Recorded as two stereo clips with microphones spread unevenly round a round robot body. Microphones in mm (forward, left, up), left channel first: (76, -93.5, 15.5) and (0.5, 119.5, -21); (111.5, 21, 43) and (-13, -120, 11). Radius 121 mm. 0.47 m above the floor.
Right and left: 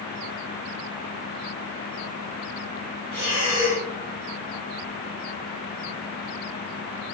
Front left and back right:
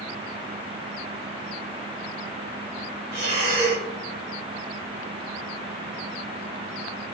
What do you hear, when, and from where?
3.1 s breathing: 175° left, 1.9 m